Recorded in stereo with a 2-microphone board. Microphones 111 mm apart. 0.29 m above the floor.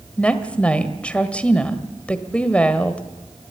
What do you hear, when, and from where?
0.2 s a woman speaking: 10° left (ahead or behind), 1.4 m